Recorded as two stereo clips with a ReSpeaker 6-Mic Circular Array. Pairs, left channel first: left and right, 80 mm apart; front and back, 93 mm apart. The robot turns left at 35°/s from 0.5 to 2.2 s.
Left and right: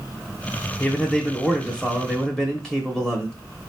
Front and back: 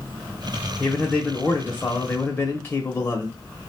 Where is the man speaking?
65° left, 1.0 m; by 3.7 s 20° left, 1.0 m.